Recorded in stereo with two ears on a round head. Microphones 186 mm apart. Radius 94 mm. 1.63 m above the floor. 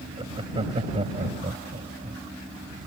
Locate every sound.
0.2 s laughter: 25° right (ahead or behind); by 2.2 s 30° right (ahead or behind)